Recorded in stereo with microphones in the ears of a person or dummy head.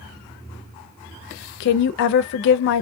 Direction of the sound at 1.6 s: 60° left (ahead or behind).